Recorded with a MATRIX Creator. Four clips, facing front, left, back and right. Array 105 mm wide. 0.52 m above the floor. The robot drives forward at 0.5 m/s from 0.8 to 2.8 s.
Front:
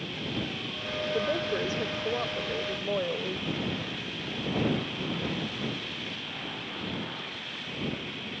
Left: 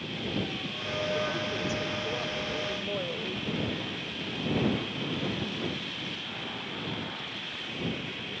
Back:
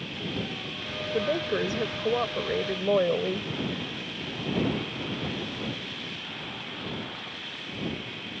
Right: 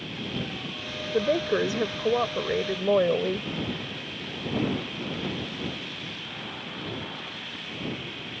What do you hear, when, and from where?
1.1 s a woman speaking: 100° right; by 3.5 s 120° right